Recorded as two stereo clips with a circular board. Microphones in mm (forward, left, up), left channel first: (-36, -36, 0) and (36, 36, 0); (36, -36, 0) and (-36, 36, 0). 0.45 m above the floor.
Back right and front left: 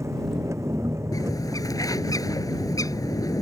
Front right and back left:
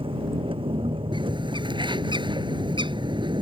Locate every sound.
0.0 s an engine running: 105° left
1.1 s a bird: 175° left